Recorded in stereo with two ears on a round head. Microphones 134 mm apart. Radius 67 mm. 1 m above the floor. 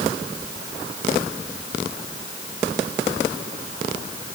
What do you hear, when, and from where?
Only background noise.